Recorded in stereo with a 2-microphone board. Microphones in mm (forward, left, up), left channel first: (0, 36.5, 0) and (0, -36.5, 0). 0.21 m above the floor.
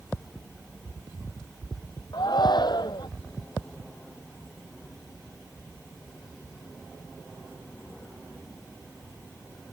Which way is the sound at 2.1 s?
75° left (ahead or behind).